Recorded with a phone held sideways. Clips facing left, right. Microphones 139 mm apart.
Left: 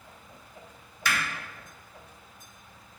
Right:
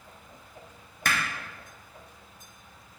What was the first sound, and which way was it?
Hammering, 50° right (ahead or behind).